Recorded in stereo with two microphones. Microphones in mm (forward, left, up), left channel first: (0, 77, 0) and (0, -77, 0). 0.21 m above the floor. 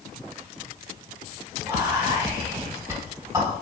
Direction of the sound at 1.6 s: 20° right (ahead or behind).